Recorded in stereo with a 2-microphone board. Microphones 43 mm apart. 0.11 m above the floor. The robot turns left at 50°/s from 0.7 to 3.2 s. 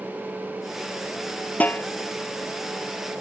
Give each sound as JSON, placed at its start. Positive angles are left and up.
{"t": 1.6, "sound": "a snare drum", "side_deg": 40}